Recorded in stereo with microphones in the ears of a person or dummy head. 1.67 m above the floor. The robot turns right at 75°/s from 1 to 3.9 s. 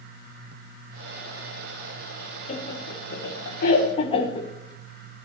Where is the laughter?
40° left (ahead or behind), 1.5 m; by 4.5 s 30° left (ahead or behind), 1.5 m.